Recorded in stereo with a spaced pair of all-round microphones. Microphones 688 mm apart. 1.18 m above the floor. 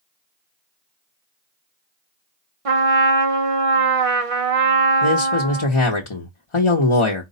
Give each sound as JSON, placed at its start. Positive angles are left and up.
{"t": 2.6, "sound": "a trumpet", "side_deg": -50, "distance_m": 0.9}
{"t": 5.0, "sound": "a man speaking", "side_deg": 45, "distance_m": 1.0}